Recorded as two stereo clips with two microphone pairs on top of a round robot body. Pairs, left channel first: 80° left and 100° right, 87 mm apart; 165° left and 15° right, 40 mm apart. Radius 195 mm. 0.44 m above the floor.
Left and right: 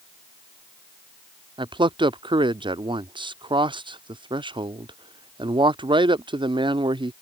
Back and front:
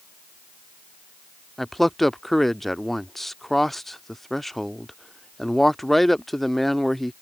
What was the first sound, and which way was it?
A man speaking, 110° right.